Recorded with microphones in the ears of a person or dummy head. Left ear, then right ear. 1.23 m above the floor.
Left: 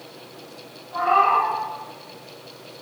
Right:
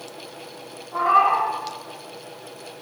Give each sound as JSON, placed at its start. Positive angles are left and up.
{"t": 0.9, "sound": "a cat meowing", "side_deg": -35, "distance_m": 4.0}